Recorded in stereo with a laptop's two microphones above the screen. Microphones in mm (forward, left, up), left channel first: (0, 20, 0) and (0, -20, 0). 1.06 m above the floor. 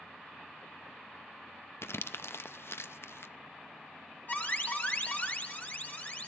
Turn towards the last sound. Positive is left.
turn(degrees=45)  # may be behind; listen again after turning